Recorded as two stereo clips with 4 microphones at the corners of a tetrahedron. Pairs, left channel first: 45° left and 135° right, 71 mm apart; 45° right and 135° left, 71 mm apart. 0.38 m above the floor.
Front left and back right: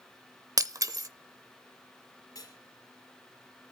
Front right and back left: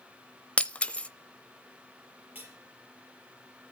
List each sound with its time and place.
0.6 s breaking glass: 115° right, 0.6 m
2.4 s cutlery clinking: 70° left, 4 m